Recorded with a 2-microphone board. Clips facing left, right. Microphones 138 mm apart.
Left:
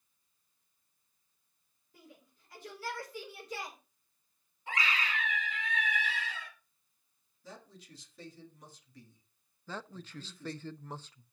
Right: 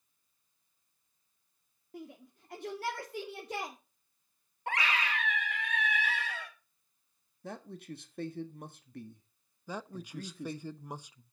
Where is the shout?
65° right (ahead or behind), 2.5 m.